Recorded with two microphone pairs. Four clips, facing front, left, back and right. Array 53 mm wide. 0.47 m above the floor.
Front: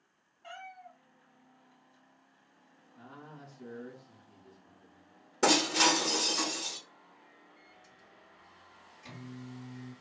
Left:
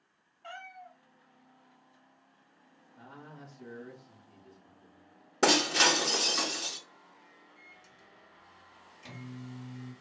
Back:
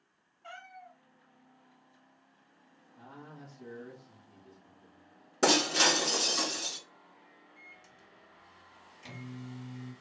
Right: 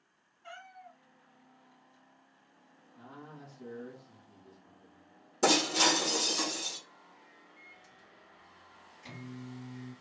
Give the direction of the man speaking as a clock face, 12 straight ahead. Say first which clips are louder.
Even, even; 10 o'clock.